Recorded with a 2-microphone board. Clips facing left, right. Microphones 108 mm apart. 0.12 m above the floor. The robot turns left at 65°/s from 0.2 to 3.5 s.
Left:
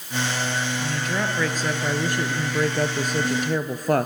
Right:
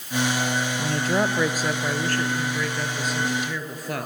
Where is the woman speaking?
115° right, 1.6 m; by 4.1 s 65° left, 1.6 m.